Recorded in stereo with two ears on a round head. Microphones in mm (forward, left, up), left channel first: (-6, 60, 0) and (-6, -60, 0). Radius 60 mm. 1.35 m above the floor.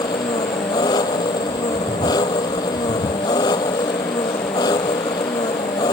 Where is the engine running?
30° left (ahead or behind).